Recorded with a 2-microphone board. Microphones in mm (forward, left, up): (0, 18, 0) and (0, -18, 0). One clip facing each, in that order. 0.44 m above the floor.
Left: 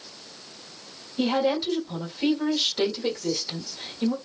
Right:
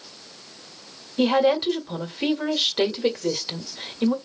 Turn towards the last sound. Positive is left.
turn(degrees=-30)  # may be behind; listen again after turning